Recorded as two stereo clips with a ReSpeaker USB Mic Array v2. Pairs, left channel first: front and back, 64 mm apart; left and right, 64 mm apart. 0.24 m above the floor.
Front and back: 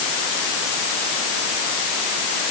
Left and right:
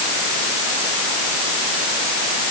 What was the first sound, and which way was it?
Only background noise.